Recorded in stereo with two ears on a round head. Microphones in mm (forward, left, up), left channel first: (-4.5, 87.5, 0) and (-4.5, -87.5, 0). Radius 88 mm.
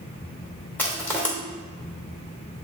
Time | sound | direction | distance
0.8 | crushing | 10° left (ahead or behind) | 1.8 m